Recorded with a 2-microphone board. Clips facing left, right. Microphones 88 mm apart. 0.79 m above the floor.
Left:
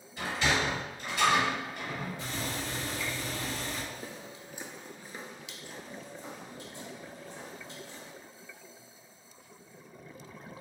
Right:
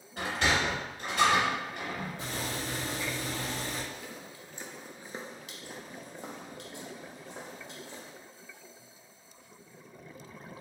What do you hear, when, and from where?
0.2 s a sliding door: 60° right (ahead or behind), 2 m
2.2 s boiling: 45° right (ahead or behind), 1.8 m
3.9 s footsteps: 45° left (ahead or behind), 1.0 m; by 8.1 s 70° right (ahead or behind), 3 m